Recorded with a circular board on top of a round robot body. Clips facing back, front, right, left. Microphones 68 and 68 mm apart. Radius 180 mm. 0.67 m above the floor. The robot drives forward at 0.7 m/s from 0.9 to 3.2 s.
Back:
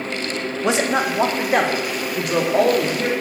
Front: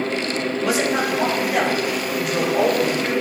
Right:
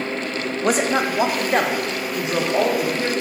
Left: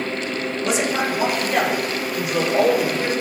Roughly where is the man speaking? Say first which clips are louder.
Back 2 dB, right 3 dB; behind right.